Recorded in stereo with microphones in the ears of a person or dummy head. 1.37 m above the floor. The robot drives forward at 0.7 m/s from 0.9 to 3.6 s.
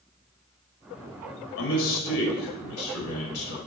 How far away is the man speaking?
About 3 m.